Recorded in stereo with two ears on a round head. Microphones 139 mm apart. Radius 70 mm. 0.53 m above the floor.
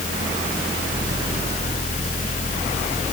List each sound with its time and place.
Only background noise.